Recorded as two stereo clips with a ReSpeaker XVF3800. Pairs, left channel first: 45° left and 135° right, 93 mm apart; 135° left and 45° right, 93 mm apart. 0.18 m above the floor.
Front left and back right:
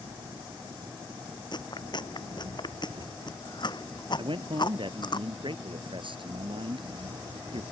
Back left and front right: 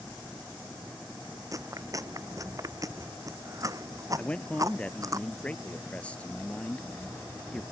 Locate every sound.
0.0 s an engine running: 120° right
1.5 s chewing: 10° left
4.2 s a man speaking: 150° right